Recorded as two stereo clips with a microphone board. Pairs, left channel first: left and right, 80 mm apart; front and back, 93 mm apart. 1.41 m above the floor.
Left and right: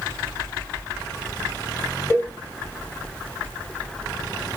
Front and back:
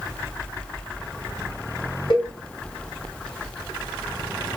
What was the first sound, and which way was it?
A cowbell, 35° left.